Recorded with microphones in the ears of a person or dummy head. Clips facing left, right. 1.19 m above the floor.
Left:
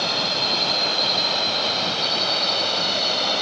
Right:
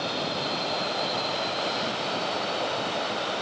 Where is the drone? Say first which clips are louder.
Left 2 dB; 70° left (ahead or behind); by 3.4 s 80° left.